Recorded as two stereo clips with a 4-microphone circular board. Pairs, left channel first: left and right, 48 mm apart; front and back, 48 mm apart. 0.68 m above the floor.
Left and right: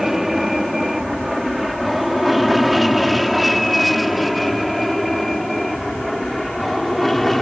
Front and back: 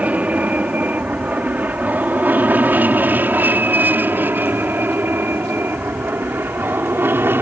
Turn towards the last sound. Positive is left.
turn(degrees=175)